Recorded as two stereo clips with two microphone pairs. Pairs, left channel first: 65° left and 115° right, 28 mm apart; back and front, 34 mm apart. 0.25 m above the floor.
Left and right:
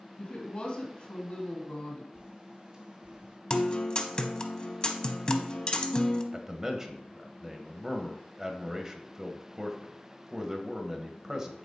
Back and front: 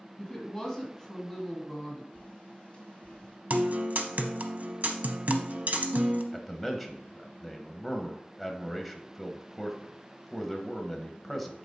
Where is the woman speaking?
105° left, 1.7 m.